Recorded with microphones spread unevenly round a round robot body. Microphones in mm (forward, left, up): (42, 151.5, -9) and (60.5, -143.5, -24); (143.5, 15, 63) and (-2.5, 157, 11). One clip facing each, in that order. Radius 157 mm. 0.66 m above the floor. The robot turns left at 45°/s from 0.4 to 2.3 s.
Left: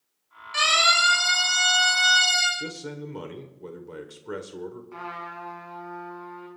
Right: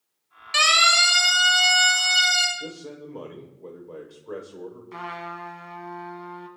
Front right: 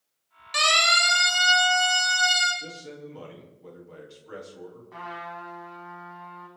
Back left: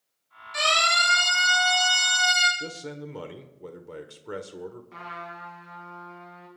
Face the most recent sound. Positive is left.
turn(degrees=-150)